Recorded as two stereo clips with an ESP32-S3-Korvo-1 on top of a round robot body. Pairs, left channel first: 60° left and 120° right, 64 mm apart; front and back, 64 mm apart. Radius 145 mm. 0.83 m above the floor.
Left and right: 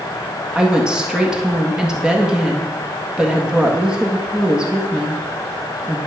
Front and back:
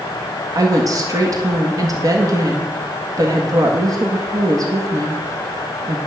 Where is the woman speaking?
160° left, 1.8 m.